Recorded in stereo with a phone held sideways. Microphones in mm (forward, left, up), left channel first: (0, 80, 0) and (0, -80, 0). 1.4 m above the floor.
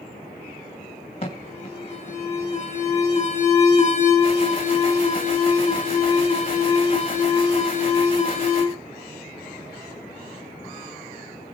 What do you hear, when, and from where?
1.2 s an alarm: 35° left (ahead or behind), 2.5 m